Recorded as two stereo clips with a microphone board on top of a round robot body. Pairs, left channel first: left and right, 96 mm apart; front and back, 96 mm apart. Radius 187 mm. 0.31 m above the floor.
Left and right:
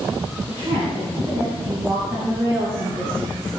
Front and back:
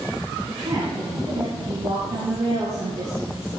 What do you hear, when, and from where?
0.5 s a woman speaking: 130° right, 4.5 m; by 3.5 s 155° right, 6 m